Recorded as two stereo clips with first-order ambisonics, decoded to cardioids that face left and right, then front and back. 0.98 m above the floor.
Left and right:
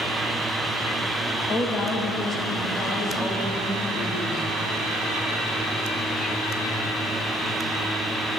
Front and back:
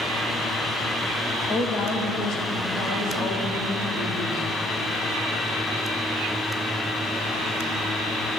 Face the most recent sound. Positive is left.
turn(degrees=25)